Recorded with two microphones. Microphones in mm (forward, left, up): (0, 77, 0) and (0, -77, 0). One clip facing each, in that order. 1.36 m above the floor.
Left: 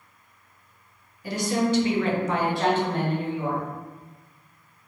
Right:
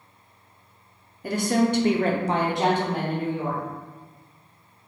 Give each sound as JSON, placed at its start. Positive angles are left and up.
{"t": 1.2, "sound": "a woman speaking", "side_deg": -50, "distance_m": 0.7}